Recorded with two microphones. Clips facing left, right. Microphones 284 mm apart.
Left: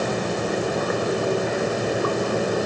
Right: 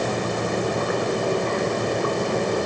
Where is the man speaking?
I don't hear a man speaking.